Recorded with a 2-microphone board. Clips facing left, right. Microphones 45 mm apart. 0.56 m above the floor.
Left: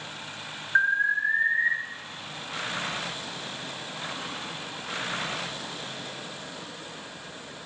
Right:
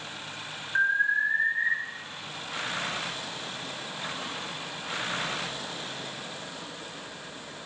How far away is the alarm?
About 7.5 m.